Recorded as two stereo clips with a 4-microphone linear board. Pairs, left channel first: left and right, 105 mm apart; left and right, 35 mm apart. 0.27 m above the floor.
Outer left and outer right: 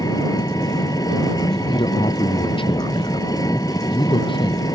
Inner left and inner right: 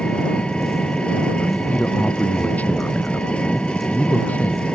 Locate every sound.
0.0 s an engine running: 35° left (ahead or behind)
1.4 s a man speaking: 50° left (ahead or behind)